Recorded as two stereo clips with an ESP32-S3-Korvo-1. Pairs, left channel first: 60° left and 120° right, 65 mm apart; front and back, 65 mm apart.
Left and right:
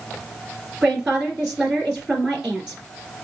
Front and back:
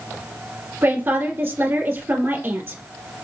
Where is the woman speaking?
170° left, 2 m.